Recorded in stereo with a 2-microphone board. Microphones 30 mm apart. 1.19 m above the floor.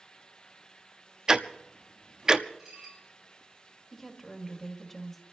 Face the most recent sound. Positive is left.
turn(degrees=5)  # may be behind; listen again after turning